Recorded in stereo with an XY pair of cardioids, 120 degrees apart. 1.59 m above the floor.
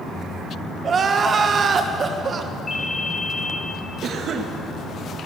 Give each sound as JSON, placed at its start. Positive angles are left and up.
{"t": 0.8, "sound": "crying", "azimuth_deg": -35, "distance_m": 1.7}
{"t": 2.7, "sound": "a ringtone", "azimuth_deg": 35, "distance_m": 4.5}
{"t": 4.0, "sound": "a cough", "azimuth_deg": -50, "distance_m": 1.9}